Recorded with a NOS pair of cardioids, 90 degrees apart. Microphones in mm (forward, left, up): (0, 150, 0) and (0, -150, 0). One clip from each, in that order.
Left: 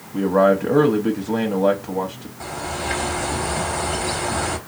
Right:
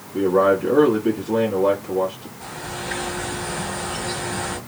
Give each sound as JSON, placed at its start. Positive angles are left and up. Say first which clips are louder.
{"t": 0.1, "sound": "a man speaking", "louder": "left 1 dB", "azimuth_deg": 55, "distance_m": 1.1}
{"t": 2.4, "sound": "a bird", "louder": "left 4 dB", "azimuth_deg": 65, "distance_m": 1.3}